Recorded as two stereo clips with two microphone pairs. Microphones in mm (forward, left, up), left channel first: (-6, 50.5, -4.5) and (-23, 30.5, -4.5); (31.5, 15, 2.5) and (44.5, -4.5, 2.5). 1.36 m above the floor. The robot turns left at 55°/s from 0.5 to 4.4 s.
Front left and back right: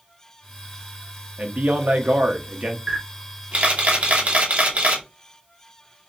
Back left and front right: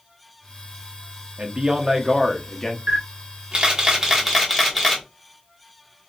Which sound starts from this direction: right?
A man speaking, at 1.4 s.